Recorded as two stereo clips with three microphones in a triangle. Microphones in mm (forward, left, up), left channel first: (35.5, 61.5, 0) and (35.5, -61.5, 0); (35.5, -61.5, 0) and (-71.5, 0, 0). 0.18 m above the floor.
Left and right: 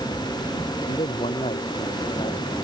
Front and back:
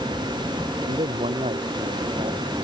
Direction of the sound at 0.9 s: 120° left.